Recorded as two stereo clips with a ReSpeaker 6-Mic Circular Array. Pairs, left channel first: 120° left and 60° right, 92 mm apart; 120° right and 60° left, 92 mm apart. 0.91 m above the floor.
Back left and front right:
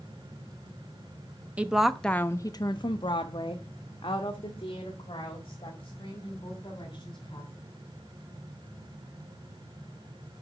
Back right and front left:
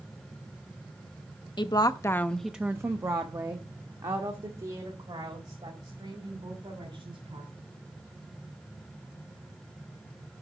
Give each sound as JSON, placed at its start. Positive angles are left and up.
{"t": 1.6, "sound": "a woman speaking", "azimuth_deg": -135, "distance_m": 0.7}